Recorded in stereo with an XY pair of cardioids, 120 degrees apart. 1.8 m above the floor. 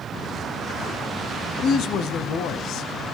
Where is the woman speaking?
70° left, 0.8 m.